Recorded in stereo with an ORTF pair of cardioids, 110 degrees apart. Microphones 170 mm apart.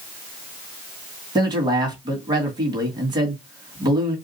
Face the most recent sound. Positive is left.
turn(degrees=-25)